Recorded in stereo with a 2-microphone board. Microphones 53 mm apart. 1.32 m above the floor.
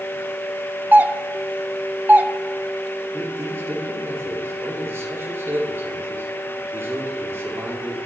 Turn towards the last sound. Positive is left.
turn(degrees=-55)  # may be behind; listen again after turning